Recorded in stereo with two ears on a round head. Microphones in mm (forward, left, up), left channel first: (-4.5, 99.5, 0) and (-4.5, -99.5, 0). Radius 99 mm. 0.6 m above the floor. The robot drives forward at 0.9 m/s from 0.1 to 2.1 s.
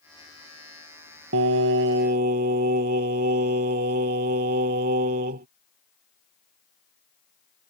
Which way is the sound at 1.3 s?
60° right (ahead or behind).